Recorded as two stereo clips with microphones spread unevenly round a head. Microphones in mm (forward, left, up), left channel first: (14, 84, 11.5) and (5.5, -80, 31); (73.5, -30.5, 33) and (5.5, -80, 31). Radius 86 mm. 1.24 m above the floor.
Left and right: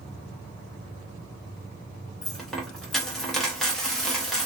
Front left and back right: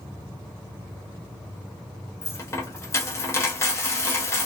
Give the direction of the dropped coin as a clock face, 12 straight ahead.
12 o'clock.